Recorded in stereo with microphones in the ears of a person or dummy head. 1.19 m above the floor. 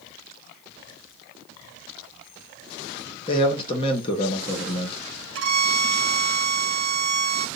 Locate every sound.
3.3 s a man speaking: 25° left (ahead or behind), 0.9 m
5.3 s a violin: 70° right (ahead or behind), 0.8 m